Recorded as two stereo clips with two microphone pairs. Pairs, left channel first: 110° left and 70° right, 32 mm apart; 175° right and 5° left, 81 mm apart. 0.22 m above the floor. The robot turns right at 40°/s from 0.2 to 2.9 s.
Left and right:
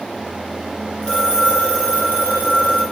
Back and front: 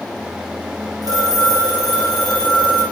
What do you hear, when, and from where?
1.0 s a phone ringing: 45° left, 4.5 m; by 2.8 s 115° left, 4.5 m